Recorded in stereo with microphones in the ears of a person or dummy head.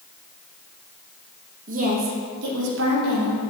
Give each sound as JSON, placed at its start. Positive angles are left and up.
{"t": 1.7, "sound": "a woman speaking", "side_deg": -40, "distance_m": 1.9}